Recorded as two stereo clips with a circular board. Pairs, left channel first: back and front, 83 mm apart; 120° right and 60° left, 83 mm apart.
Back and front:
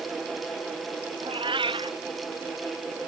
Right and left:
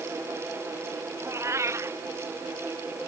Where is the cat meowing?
5° left.